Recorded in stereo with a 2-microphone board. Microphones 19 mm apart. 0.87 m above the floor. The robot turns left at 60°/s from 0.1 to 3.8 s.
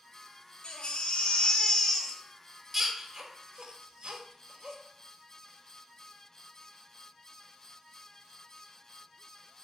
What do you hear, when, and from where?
0.6 s a baby crying: 60° left (ahead or behind), 1.0 m; by 4.8 s 65° right (ahead or behind), 1.0 m